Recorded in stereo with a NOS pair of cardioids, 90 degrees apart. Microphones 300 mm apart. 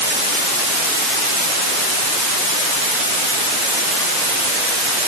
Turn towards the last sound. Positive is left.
No sound to turn to.